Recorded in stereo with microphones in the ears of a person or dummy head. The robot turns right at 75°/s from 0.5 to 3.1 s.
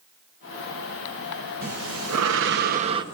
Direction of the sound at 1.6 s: 130° right.